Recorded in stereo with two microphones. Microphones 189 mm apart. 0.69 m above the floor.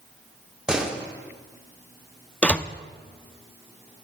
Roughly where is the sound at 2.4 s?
Centre.